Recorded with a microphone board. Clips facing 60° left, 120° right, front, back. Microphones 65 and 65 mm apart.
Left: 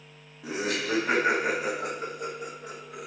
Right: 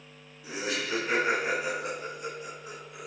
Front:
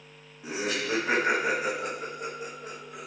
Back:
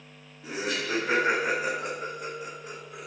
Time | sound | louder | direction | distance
0.4 | laughter | left 3 dB, front 1 dB | 75° left | 1.6 m